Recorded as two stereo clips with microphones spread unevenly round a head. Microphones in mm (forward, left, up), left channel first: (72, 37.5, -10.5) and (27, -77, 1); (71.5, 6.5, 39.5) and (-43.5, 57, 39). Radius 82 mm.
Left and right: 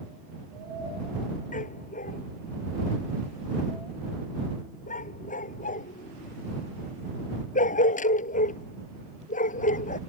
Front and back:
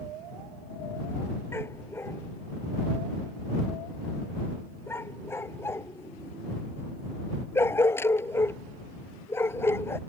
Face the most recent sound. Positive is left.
turn(degrees=50)